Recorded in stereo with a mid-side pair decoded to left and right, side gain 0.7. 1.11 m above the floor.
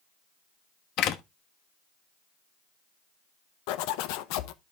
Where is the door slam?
55° left, 1.2 m.